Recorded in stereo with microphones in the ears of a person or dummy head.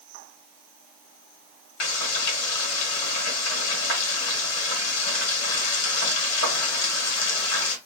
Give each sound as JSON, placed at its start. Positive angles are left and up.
{"t": 1.8, "sound": "frying", "side_deg": 70, "distance_m": 1.5}